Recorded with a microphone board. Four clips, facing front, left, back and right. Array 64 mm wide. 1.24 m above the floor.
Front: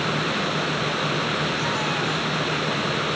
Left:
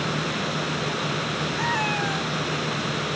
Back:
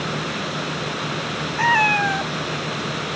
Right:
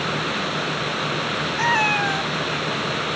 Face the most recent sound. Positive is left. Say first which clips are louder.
# right 6 dB, back 7 dB
turn(degrees=-150)